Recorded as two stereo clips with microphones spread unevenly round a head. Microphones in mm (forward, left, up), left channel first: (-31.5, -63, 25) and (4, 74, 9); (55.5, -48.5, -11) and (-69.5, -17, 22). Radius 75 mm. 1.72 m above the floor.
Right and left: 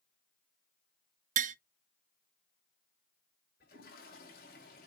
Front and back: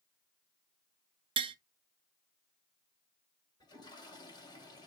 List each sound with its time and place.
1.4 s tapping: 115° left, 0.6 m
3.6 s a toilet flushing: 75° right, 6 m